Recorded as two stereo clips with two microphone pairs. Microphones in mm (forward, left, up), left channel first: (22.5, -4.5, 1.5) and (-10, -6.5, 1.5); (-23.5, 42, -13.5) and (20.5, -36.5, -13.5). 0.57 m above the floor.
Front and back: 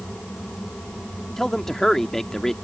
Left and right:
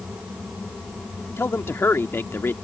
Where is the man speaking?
75° left.